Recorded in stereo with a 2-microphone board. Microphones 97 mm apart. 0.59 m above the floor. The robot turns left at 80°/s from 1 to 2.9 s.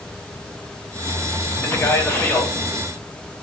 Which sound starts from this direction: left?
A man speaking, at 1.6 s.